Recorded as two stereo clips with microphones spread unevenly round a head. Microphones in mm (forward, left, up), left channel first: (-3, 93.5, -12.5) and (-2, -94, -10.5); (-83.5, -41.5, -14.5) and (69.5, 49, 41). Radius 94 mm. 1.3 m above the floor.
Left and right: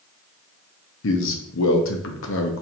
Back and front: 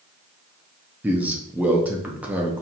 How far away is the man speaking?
About 0.9 m.